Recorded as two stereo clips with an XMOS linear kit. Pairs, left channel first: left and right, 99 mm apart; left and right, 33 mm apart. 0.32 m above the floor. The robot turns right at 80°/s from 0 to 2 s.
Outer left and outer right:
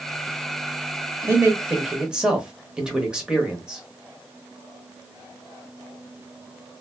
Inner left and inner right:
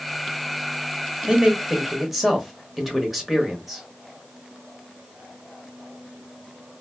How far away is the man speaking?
About 0.9 m.